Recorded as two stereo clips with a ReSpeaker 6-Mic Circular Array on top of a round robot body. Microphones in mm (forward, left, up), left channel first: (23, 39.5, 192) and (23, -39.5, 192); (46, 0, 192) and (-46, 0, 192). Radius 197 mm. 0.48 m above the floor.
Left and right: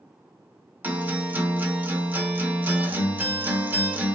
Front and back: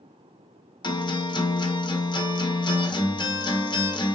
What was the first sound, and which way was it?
A guitar, 25° right.